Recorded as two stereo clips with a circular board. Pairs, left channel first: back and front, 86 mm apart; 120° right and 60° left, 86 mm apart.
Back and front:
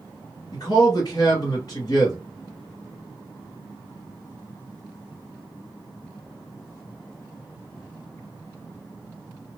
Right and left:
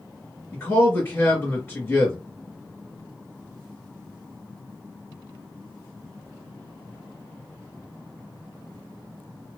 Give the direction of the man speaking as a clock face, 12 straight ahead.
6 o'clock.